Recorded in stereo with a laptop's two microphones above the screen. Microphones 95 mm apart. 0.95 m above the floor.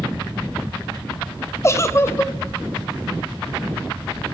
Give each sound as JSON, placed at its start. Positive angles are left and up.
{"t": 1.6, "sound": "a giggle", "side_deg": 30, "distance_m": 0.5}